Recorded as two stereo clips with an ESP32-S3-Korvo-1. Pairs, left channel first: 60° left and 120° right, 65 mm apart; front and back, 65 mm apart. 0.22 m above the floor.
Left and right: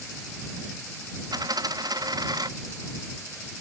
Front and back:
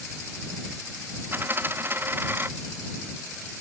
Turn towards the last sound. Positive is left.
turn(degrees=-125)